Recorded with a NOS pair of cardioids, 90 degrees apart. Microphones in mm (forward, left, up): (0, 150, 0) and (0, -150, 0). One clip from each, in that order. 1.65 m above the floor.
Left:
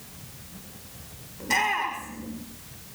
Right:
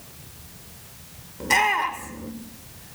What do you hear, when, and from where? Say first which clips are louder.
1.4 s a shout: right 4 dB; 40° right, 5.5 m